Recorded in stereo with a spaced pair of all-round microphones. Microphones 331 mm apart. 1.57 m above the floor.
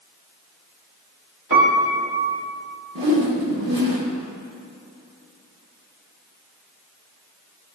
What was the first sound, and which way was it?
A piano, 65° right (ahead or behind).